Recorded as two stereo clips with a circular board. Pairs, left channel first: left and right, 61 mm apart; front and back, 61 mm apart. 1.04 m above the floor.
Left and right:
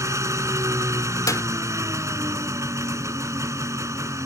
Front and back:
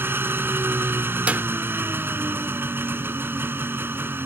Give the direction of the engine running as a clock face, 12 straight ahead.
4 o'clock.